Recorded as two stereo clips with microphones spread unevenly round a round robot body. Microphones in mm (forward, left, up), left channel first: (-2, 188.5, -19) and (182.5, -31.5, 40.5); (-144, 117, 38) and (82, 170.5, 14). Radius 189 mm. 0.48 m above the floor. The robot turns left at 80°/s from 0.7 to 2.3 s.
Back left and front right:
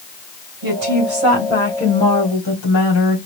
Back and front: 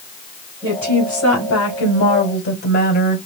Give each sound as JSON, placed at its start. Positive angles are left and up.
{"t": 0.6, "sound": "a woman speaking", "azimuth_deg": -70, "distance_m": 2.5}